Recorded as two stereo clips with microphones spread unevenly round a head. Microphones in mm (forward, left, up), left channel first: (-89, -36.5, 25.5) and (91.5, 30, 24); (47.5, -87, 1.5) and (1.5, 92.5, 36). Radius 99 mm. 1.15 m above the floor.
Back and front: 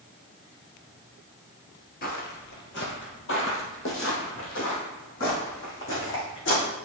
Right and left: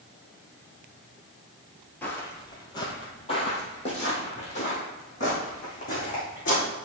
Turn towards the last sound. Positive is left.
turn(degrees=-130)